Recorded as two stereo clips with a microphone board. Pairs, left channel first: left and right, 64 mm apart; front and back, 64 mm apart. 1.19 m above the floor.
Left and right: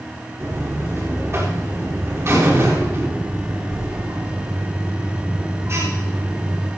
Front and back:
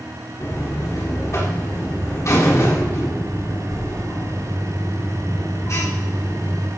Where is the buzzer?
45° right, 3.5 m.